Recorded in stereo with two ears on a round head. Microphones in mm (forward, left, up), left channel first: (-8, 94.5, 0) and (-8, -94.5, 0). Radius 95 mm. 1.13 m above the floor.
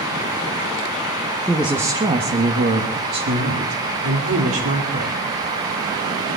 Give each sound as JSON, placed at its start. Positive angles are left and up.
{"t": 1.5, "sound": "a woman speaking", "side_deg": 5, "distance_m": 1.1}